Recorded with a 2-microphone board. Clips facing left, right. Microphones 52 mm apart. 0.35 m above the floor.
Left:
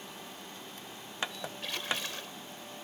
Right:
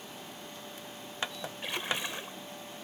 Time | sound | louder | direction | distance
1.6 | a splash | right 2 dB | 20° right (ahead or behind) | ?